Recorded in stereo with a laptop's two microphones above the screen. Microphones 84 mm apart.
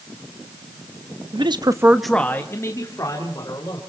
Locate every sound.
1.3 s a man speaking: 75° right (ahead or behind), 1.0 m; by 3.8 s 50° left (ahead or behind), 3 m